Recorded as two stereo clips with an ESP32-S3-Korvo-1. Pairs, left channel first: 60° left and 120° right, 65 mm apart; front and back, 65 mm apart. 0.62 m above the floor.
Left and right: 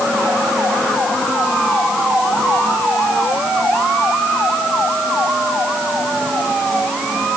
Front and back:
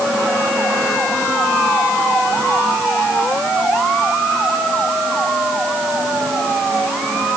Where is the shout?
No shout in this recording.